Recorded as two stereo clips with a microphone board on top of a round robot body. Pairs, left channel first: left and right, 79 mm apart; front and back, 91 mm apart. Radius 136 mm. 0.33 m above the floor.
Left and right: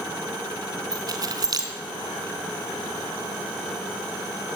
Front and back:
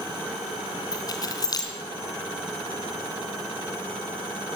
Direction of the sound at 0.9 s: 50° right.